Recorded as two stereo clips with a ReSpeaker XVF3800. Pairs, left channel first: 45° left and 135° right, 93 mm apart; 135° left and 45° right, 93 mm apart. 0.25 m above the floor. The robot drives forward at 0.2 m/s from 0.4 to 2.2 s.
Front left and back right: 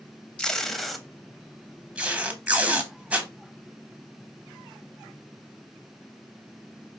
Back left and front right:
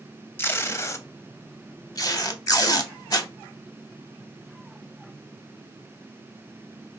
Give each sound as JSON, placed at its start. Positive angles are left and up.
{"t": 0.4, "sound": "tape being pulled", "azimuth_deg": 115, "distance_m": 0.5}